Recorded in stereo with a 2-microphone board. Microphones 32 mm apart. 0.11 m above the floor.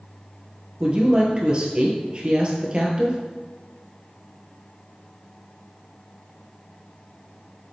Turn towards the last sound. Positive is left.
turn(degrees=-35)  # may be behind; listen again after turning